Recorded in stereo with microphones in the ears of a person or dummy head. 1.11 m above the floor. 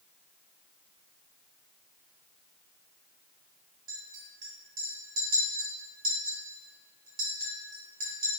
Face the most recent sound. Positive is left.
turn(degrees=-60)  # may be behind; listen again after turning